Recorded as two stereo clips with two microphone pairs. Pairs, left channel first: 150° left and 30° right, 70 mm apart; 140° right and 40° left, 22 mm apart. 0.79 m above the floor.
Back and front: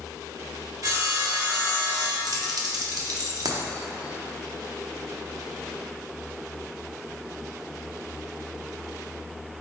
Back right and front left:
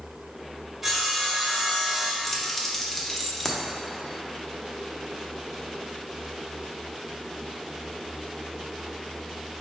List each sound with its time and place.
0.8 s sawing: 35° right, 1.5 m
2.2 s keys jangling: 55° right, 0.7 m